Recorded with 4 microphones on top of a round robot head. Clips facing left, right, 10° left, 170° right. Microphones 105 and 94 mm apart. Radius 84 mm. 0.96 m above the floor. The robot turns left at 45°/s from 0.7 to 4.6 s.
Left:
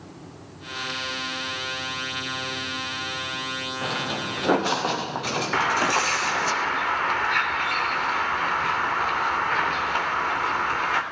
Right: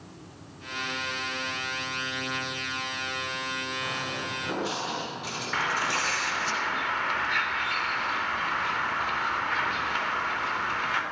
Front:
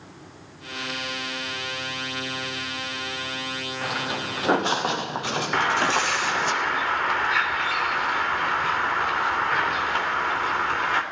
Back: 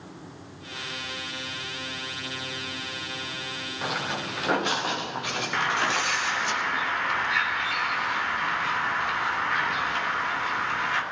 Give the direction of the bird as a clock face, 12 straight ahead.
10 o'clock.